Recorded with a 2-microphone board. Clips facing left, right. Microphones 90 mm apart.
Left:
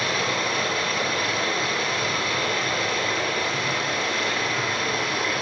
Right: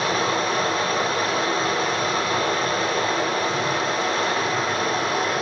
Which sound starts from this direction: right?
Running water, at 0.0 s.